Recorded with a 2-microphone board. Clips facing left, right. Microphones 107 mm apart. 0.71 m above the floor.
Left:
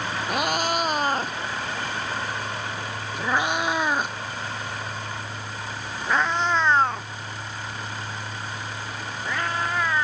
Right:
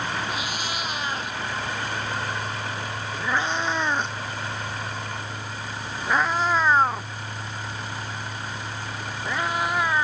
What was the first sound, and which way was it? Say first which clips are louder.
A cat meowing: left 6 dB; 55° left (ahead or behind).